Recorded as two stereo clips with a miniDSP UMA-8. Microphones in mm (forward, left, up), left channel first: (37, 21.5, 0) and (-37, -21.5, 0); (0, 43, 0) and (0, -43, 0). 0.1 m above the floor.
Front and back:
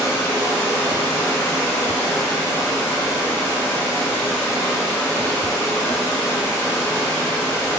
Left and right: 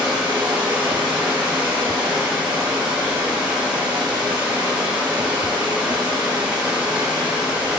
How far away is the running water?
About 1.6 m.